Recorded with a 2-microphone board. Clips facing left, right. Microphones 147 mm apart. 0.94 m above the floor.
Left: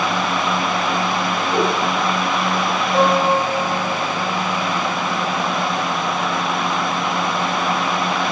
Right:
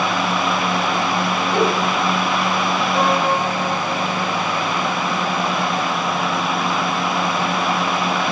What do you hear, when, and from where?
1.5 s a giggle: 30° left (ahead or behind), 8 m
2.9 s a piano: 35° left (ahead or behind), 4.5 m